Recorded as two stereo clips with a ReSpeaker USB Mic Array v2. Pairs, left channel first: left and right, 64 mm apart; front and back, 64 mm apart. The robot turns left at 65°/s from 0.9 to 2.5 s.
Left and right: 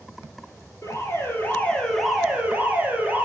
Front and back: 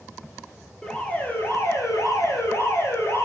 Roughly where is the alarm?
Left.